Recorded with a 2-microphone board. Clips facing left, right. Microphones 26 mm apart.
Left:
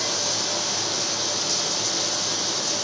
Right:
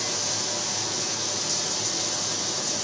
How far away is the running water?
About 0.9 m.